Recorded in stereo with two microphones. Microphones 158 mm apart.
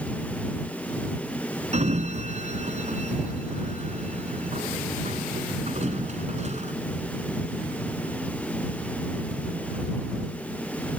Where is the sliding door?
45° right (ahead or behind).